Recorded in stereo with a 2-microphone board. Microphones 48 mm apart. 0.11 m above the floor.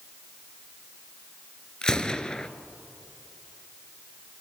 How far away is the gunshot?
About 0.6 m.